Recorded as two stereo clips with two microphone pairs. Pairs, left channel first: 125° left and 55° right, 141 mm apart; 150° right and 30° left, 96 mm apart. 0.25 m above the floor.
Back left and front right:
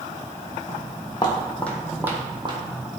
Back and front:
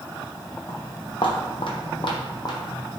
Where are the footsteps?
165° left, 0.8 m; by 2.8 s 100° right, 0.7 m.